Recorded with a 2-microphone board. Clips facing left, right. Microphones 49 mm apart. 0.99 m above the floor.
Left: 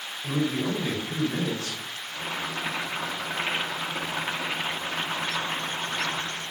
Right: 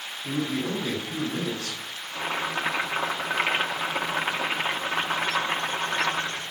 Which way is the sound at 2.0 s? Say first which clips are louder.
Right 4 dB; 35° right (ahead or behind).